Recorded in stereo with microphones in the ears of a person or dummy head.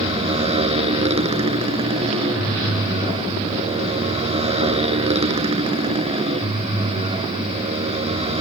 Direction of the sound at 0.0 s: 30° right (ahead or behind).